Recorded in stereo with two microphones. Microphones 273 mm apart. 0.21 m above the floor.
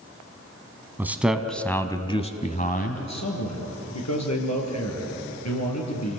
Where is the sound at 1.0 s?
5° right (ahead or behind), 1.5 m; by 3.0 s 35° left (ahead or behind), 1.4 m.